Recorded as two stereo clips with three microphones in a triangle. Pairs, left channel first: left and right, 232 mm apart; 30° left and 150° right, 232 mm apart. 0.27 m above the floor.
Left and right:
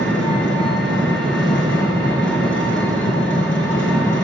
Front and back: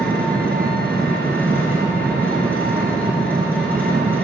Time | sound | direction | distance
0.0 | an engine running | 115° left | 2.5 m